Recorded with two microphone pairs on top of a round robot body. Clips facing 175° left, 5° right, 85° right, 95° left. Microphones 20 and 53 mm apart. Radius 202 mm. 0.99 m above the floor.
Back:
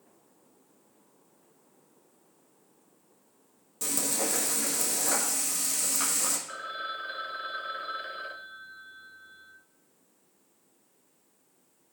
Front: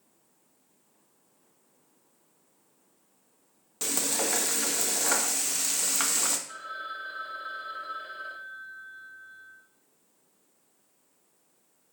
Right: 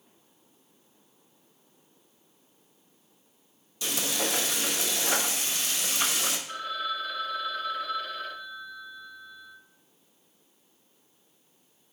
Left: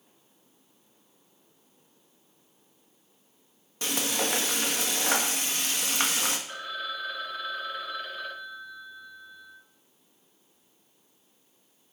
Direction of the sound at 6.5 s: 175° left.